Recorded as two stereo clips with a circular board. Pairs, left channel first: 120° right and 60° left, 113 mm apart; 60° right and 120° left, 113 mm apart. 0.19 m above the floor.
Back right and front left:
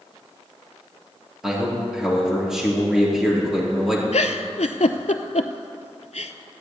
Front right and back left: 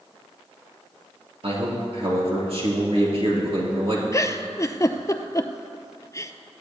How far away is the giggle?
About 0.6 m.